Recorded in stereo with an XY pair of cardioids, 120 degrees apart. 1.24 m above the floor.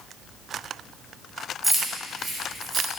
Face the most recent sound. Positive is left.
turn(degrees=-45)